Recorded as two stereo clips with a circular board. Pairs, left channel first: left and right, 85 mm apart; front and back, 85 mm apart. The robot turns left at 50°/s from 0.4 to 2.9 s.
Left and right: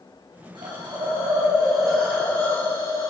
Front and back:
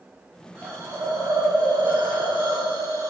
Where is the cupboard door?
No cupboard door in this recording.